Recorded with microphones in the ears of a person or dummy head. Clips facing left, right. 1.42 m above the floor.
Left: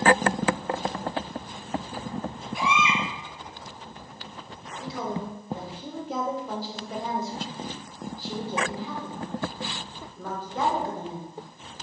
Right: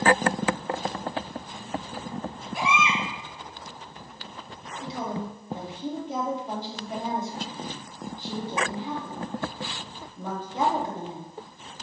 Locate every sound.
2.5 s a baby crying: 35° right (ahead or behind), 5 m
4.8 s a woman speaking: 15° right (ahead or behind), 3 m